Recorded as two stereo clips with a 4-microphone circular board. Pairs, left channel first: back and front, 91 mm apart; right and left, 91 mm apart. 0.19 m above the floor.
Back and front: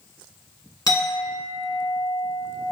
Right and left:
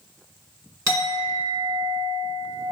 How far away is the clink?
About 1.8 m.